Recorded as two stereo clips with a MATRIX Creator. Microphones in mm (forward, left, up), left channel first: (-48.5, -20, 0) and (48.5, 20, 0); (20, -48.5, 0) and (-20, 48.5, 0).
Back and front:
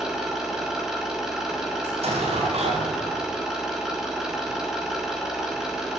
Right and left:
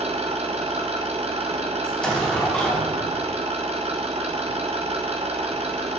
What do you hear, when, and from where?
0.0 s an engine running: 110° left, 5.5 m
1.8 s an explosion: 15° left, 6 m